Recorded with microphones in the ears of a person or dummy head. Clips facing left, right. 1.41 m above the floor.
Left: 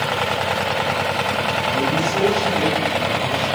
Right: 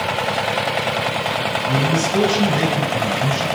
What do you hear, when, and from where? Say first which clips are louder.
1.7 s a man speaking: right 3 dB; 80° right, 5.5 m